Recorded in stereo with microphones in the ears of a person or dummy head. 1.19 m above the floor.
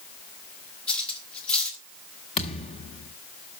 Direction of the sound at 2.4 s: 35° left (ahead or behind).